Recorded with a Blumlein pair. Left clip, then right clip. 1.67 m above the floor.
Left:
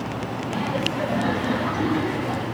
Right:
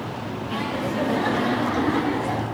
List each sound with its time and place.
0.5 s laughter: 55° right, 2.5 m; by 2.5 s 75° right, 3.5 m